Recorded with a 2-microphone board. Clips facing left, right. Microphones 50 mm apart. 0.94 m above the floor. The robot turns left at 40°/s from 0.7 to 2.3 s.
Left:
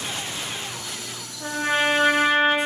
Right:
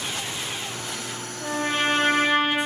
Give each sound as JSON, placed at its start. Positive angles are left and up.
{"t": 1.4, "sound": "a trumpet", "azimuth_deg": 40, "distance_m": 1.1}